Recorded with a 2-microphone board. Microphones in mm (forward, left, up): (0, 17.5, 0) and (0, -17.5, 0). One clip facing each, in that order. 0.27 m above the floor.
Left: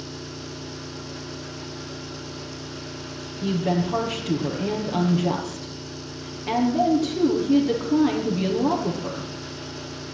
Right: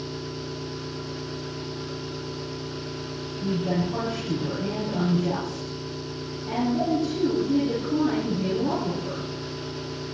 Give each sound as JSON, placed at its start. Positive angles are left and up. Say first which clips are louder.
{"t": 0.0, "sound": "an engine running", "louder": "right 2 dB", "side_deg": -30, "distance_m": 7.0}
{"t": 3.4, "sound": "a woman speaking", "louder": "left 3 dB", "side_deg": 70, "distance_m": 6.0}